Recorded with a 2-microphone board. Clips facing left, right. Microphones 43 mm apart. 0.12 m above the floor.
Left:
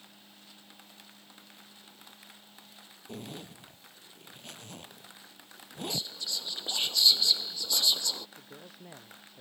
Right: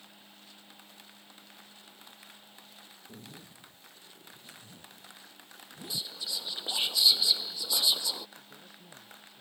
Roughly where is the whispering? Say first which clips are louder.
Right 1 dB; centre.